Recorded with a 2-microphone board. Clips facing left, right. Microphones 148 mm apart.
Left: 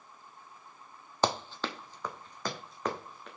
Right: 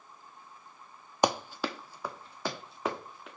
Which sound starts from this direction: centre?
Running footsteps, at 1.2 s.